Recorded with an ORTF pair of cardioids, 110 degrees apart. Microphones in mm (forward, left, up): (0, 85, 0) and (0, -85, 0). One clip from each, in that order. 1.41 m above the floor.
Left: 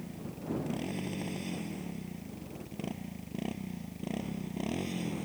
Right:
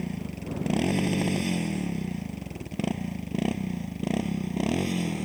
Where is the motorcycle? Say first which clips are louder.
Right 7 dB; 65° right; by 5.3 s 45° right.